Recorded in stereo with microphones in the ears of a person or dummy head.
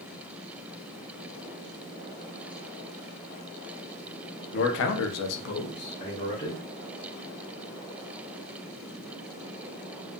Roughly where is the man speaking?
Left.